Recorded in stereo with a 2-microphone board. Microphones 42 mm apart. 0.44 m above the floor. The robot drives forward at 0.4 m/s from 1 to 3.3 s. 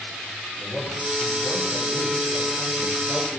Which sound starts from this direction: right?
A man speaking, at 0.5 s.